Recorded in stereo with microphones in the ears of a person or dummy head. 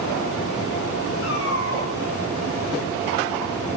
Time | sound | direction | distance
1.2 | a cat meowing | 60° left (ahead or behind) | 7 m